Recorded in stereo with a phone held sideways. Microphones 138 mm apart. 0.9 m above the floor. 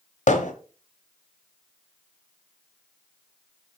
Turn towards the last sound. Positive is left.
turn(degrees=60)  # may be behind; listen again after turning